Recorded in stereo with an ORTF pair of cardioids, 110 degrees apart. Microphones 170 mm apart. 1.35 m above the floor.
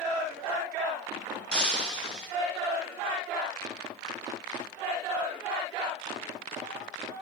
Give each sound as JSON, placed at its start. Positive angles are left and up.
{"t": 1.5, "sound": "breaking glass", "azimuth_deg": 5, "distance_m": 6.0}